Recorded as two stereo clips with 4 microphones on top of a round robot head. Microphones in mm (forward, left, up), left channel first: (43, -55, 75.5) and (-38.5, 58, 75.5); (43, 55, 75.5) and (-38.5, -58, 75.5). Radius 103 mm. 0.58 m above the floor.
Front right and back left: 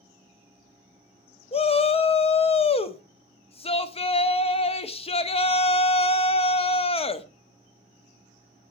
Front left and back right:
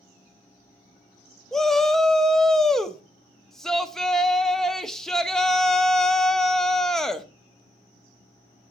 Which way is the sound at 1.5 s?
30° right.